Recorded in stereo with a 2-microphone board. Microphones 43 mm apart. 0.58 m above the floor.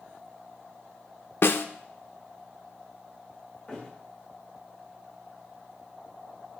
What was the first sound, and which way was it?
A snare drum, 55° left (ahead or behind).